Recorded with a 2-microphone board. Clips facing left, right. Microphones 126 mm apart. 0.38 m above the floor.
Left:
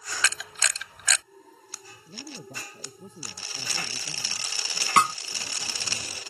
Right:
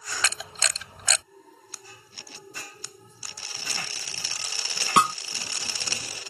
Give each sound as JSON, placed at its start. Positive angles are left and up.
{"t": 0.2, "sound": "a camera shutter", "side_deg": -30}
{"t": 2.1, "sound": "a woman speaking", "side_deg": 85}
{"t": 5.0, "sound": "a snare drum", "side_deg": -20}